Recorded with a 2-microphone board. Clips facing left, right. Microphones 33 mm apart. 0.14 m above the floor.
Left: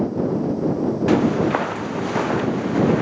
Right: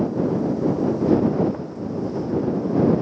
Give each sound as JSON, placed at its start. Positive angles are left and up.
{"t": 1.1, "sound": "footsteps", "side_deg": 85}